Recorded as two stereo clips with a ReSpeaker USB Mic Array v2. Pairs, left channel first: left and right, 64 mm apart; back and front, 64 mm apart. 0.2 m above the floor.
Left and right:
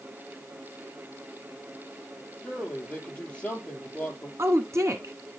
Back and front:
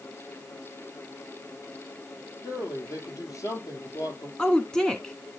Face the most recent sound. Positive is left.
turn(degrees=-105)